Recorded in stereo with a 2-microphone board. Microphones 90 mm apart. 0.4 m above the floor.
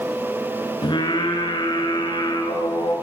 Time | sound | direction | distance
0.8 | singing | 60° left (ahead or behind) | 6.5 m